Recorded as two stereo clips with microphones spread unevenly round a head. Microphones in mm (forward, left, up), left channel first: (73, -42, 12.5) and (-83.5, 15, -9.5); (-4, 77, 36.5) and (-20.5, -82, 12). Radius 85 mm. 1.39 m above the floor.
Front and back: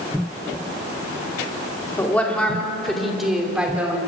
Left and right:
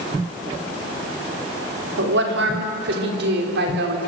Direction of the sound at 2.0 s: 100° right.